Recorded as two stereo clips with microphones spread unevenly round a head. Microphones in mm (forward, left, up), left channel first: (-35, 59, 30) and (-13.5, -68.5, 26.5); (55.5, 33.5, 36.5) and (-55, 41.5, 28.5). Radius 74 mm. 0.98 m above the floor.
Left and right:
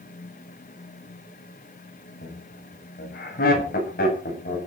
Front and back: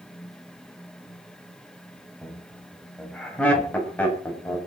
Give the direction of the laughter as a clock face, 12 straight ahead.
9 o'clock.